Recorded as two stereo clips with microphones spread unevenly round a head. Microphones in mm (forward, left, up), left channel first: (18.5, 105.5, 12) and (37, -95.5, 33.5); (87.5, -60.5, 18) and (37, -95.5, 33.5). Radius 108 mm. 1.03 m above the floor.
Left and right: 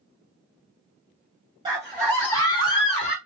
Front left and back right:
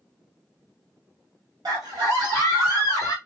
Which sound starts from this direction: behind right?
A scream, at 1.6 s.